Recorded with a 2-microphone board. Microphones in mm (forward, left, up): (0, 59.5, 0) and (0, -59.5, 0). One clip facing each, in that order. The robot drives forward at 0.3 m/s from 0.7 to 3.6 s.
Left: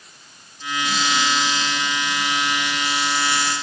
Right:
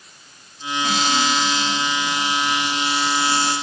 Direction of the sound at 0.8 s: 55° right (ahead or behind).